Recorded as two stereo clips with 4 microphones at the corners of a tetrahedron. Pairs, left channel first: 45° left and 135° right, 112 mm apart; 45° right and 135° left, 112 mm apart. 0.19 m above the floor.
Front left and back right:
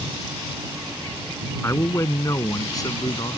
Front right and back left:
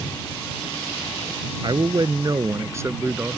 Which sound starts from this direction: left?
A man speaking, at 1.6 s.